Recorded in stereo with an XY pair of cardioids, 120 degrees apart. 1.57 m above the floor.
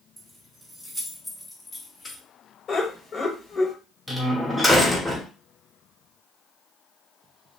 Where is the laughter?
50° left, 1.8 m.